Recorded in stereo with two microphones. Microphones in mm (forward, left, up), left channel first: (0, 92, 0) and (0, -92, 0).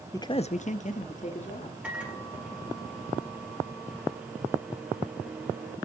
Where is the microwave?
5° right (ahead or behind), 4 m.